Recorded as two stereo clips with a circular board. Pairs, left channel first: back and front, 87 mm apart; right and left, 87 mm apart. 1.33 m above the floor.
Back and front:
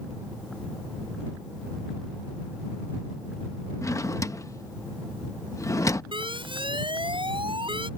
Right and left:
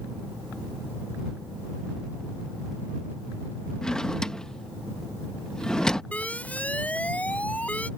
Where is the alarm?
15° right.